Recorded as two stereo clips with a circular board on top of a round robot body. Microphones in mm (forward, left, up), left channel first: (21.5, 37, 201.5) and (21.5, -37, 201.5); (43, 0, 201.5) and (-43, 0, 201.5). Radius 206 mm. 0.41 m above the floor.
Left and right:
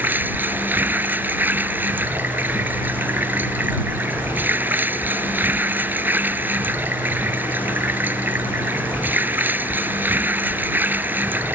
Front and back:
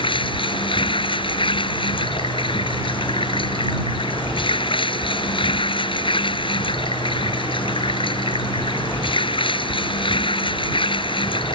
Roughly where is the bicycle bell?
No bicycle bell in this recording.